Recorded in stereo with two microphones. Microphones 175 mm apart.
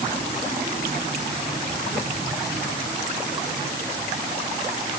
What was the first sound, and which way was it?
Only background noise.